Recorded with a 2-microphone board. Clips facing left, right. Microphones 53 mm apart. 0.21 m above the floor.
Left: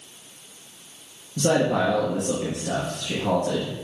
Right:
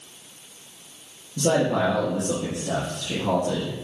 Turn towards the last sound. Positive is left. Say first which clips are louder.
# even
turn(degrees=65)  # may be behind; listen again after turning